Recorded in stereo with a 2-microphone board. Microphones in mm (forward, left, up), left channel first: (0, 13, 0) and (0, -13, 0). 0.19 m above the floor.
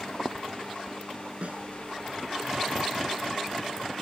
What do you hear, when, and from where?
1.4 s a snare drum: 60° right (ahead or behind)